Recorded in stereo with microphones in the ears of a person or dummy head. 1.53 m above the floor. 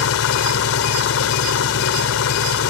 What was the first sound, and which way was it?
An engine running, 75° left (ahead or behind).